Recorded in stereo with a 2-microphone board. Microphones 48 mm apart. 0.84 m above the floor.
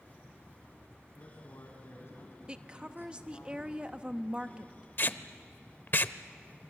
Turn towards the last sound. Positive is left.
turn(degrees=50)  # may be behind; listen again after turning